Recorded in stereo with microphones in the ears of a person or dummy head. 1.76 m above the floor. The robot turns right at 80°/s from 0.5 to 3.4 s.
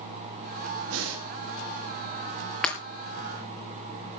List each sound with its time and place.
0.9 s breathing: 75° right (ahead or behind), 3.5 m; by 1.2 s 70° right (ahead or behind), 3.5 m
2.6 s breaking glass: 5° left (ahead or behind), 3 m; by 2.8 s 15° left (ahead or behind), 3 m